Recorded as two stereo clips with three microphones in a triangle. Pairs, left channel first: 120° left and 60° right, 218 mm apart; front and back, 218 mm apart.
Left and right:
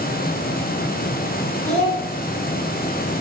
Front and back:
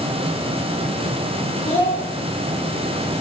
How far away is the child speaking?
About 4 m.